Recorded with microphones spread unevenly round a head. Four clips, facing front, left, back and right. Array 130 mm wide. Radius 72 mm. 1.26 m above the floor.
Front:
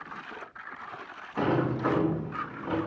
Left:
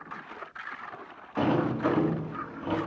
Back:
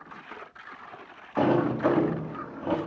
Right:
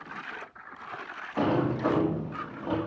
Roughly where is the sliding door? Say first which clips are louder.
Even, back 4 dB; behind.